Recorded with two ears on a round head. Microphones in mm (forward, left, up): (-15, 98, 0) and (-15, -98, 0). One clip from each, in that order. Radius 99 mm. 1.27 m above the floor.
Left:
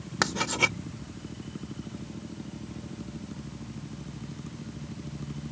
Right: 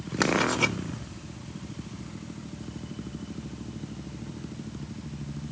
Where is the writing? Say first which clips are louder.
Right 1 dB; 10° left (ahead or behind).